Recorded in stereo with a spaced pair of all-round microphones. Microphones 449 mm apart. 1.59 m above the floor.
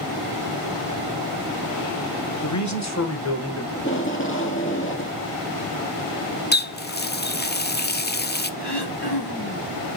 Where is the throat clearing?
60° left (ahead or behind), 3.5 m.